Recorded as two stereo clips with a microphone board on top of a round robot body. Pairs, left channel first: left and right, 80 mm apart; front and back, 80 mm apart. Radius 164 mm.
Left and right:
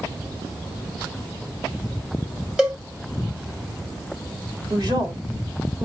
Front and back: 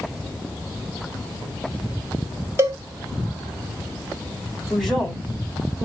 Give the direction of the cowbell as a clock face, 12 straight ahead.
5 o'clock.